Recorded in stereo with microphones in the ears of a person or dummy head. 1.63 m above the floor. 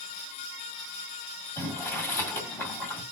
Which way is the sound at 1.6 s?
15° left (ahead or behind).